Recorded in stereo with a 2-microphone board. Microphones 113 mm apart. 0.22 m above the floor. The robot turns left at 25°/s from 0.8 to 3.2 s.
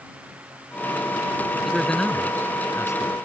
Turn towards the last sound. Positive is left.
turn(degrees=140)